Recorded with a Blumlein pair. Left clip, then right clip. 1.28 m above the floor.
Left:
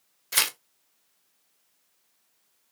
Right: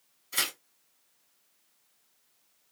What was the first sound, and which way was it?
Tearing paper, 40° left.